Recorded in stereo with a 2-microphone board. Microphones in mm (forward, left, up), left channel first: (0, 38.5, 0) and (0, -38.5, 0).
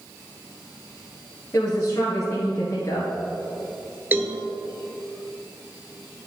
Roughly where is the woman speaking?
Left.